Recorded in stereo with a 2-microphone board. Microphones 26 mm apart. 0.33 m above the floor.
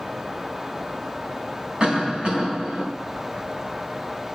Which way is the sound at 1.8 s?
45° right (ahead or behind).